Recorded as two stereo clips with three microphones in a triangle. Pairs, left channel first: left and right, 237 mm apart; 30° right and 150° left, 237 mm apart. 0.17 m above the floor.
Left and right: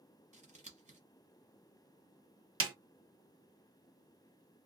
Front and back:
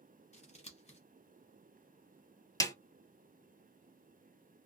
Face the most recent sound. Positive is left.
turn(degrees=-110)